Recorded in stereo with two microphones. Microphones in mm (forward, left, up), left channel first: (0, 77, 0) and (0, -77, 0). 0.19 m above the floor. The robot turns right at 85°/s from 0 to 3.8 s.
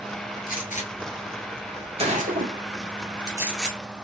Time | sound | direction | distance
0.5 | a gunshot | 70° left (ahead or behind) | 1.5 m